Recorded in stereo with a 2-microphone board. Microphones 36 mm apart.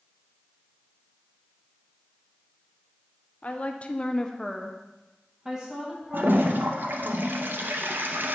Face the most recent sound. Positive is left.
turn(degrees=-65)  # may be behind; listen again after turning